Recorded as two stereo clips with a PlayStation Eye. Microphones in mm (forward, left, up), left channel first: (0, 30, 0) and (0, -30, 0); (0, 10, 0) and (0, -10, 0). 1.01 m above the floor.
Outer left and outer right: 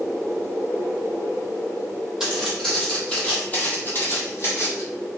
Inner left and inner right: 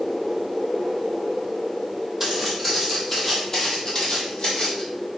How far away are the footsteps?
About 1.2 m.